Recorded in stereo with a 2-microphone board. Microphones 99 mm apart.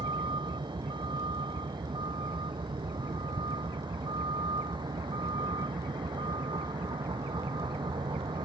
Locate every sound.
0.0 s a vehicle: 50° right (ahead or behind)